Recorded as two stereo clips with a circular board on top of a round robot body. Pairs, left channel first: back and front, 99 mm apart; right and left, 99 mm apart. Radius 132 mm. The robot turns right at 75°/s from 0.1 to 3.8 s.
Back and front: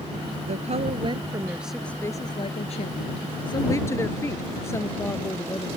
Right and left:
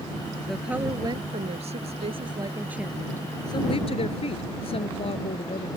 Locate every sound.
0.5 s a woman speaking: 5° right; by 5.7 s 115° right